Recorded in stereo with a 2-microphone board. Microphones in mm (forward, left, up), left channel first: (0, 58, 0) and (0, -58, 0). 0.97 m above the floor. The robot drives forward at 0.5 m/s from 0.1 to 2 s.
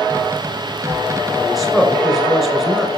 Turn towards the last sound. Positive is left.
turn(degrees=0)  # may be behind; listen again after turning